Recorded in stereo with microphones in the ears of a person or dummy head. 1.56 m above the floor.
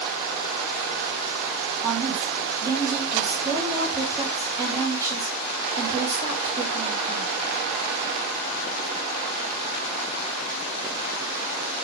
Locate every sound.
1.8 s a woman speaking: 15° right (ahead or behind), 4 m